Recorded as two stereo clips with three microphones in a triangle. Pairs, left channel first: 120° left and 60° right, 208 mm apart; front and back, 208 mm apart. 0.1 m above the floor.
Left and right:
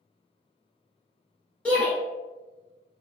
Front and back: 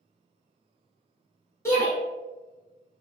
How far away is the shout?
About 1.2 m.